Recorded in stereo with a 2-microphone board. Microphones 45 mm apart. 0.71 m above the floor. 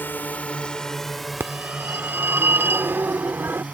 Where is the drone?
45° left (ahead or behind); by 3.7 s 35° right (ahead or behind).